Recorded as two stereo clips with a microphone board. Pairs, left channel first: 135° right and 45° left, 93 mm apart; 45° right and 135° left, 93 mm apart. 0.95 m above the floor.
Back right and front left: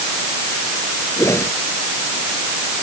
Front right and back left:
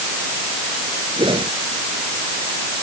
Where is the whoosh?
165° left.